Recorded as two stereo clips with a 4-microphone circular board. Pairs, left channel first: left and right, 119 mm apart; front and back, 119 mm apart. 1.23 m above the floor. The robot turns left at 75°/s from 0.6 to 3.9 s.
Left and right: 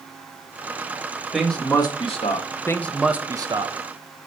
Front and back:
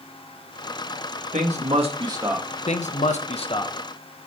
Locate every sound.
1.3 s a man speaking: 175° right, 1.7 m; by 2.5 s 100° left, 1.7 m
2.7 s a man speaking: 25° left, 0.8 m; by 3.8 s 60° right, 0.8 m